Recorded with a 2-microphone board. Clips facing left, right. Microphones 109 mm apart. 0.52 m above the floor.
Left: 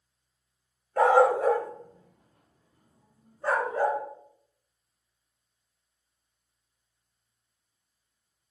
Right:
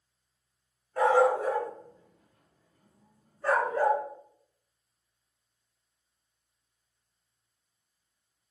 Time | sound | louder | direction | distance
1.0 | a dog barking | left 3 dB | 55° left (ahead or behind) | 0.6 m